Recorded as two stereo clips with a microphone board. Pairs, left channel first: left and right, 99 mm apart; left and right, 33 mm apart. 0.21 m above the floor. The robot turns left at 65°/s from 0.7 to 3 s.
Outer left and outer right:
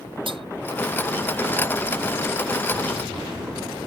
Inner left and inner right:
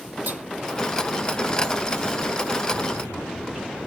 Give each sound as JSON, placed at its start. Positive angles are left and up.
{"t": 0.3, "sound": "cutlery clinking", "side_deg": -60}